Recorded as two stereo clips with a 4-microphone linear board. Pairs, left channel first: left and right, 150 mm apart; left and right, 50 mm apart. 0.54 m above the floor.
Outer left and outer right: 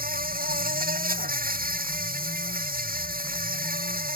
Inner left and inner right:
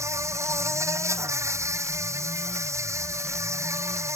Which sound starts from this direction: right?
An insect, at 0.0 s.